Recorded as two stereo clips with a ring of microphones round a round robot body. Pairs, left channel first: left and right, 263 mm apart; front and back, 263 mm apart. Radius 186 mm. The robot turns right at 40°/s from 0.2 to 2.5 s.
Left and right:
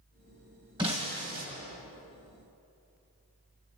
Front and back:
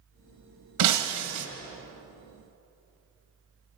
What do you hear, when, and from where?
0.8 s breaking glass: 170° right, 1.6 m; by 1.5 s 140° right, 1.6 m